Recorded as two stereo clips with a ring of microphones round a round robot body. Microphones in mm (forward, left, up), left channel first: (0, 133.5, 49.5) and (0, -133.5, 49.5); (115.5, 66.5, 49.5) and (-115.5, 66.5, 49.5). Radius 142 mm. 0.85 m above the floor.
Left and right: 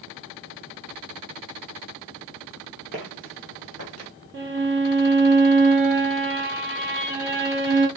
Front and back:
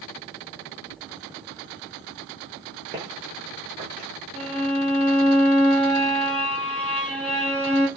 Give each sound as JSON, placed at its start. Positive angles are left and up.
{"t": 2.9, "sound": "footsteps", "azimuth_deg": -110, "distance_m": 0.9}
{"t": 4.3, "sound": "a violin", "azimuth_deg": -85, "distance_m": 1.3}